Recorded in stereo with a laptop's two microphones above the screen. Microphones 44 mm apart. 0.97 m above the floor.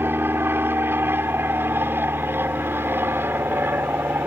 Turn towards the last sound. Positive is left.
turn(degrees=-60)  # may be behind; listen again after turning